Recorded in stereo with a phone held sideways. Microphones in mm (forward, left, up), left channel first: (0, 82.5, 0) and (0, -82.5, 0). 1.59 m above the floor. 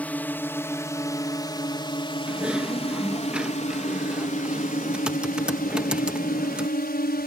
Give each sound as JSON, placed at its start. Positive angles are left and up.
{"t": 0.0, "sound": "a drone", "side_deg": 10}
{"t": 2.3, "sound": "typing on a keyboard", "side_deg": -5}